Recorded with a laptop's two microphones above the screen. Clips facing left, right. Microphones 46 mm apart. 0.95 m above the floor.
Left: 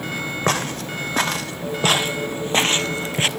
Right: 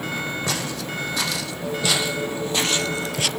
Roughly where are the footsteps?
Left.